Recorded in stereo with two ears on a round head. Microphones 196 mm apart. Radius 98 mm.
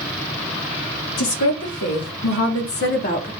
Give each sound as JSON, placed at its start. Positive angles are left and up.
{"t": 1.2, "sound": "a woman speaking", "side_deg": 75, "distance_m": 2.0}